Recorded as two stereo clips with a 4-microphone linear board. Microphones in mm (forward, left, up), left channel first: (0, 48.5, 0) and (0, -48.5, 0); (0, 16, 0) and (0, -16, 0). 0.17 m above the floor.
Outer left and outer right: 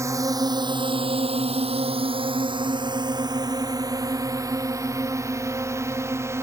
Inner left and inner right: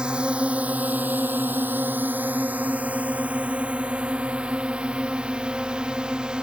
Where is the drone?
30° right (ahead or behind); by 6.4 s 25° right (ahead or behind).